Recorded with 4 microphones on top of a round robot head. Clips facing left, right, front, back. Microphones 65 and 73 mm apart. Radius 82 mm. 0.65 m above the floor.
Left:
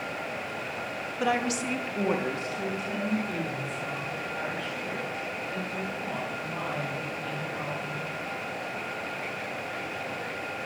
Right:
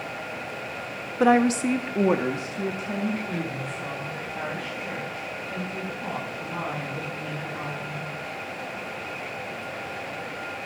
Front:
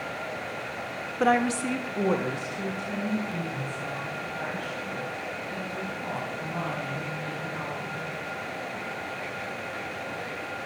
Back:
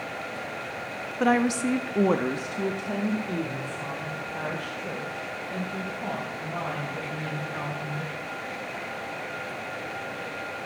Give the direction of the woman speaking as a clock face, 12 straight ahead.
3 o'clock.